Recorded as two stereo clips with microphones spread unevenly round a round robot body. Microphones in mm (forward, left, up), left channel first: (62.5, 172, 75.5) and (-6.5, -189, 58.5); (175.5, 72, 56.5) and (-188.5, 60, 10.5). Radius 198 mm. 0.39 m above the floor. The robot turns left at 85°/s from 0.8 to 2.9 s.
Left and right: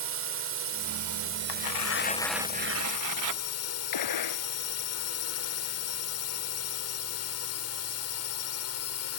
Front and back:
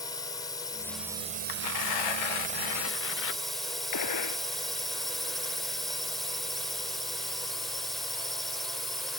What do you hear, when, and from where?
0.0 s a drone: 80° right; by 9.2 s 100° left
1.5 s tearing paper: 60° left; by 3.4 s 60° right
3.9 s a gunshot: 40° left